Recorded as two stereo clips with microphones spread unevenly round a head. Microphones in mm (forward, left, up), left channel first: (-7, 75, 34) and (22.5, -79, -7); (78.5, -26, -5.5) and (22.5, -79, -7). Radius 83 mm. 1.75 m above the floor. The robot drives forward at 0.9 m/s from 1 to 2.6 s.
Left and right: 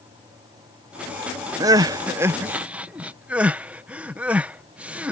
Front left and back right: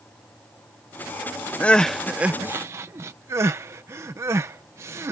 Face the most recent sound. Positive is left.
turn(degrees=-175)